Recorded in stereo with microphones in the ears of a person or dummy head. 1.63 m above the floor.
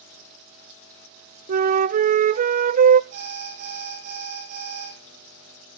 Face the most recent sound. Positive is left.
turn(degrees=-85)